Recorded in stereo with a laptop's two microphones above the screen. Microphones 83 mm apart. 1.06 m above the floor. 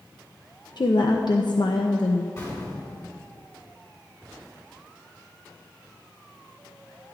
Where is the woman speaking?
60° left (ahead or behind), 0.6 m.